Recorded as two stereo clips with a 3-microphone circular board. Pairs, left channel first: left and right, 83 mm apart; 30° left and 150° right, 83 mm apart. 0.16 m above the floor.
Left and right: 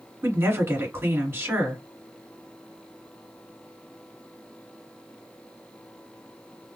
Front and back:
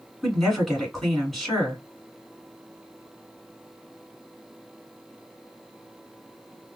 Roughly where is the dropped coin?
I don't hear a dropped coin.